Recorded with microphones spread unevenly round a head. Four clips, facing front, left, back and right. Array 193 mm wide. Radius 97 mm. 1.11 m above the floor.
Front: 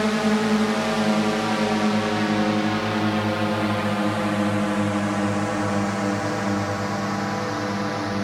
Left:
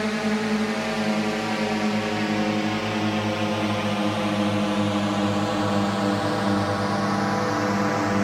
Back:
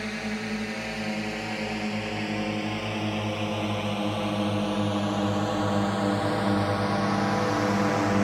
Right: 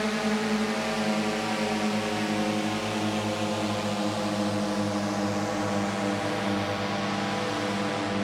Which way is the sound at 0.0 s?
10° left.